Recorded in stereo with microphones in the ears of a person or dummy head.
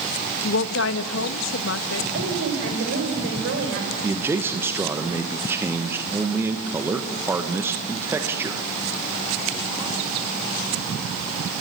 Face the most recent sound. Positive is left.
turn(degrees=-15)  # may be behind; listen again after turning